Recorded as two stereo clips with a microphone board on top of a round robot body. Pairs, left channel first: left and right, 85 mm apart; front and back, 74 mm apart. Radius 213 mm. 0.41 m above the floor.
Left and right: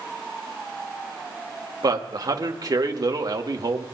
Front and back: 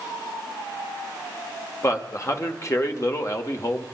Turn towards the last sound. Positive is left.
turn(degrees=-45)